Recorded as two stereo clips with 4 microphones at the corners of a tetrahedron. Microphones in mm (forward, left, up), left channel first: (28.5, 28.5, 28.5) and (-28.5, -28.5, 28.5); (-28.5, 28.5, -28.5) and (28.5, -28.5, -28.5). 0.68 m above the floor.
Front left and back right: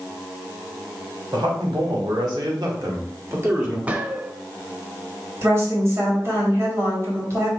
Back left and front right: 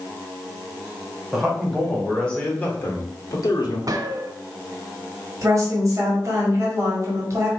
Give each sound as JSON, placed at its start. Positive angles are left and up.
{"t": 1.3, "sound": "a man speaking", "azimuth_deg": -130, "distance_m": 2.0}
{"t": 3.9, "sound": "a gunshot", "azimuth_deg": -70, "distance_m": 0.6}
{"t": 5.4, "sound": "a woman speaking", "azimuth_deg": -85, "distance_m": 1.7}